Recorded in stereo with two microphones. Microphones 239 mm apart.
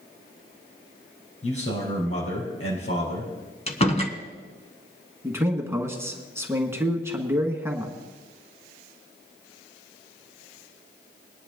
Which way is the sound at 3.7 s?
25° left (ahead or behind).